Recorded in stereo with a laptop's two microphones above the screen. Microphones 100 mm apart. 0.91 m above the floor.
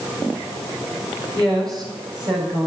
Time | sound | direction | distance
1.3 | a woman speaking | 35° right (ahead or behind) | 5 m